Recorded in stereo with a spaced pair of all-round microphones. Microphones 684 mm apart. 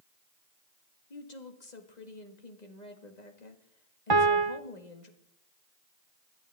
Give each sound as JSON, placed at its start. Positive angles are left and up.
{"t": 1.1, "sound": "a woman speaking", "side_deg": 70, "distance_m": 1.9}
{"t": 4.1, "sound": "a piano", "side_deg": -35, "distance_m": 0.7}